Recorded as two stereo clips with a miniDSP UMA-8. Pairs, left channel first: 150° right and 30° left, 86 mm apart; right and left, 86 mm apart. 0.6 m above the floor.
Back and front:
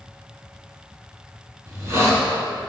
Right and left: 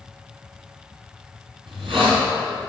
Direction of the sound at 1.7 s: 90° left.